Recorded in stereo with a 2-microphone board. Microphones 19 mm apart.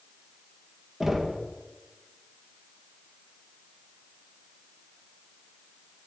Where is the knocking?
25° right (ahead or behind), 1.5 m.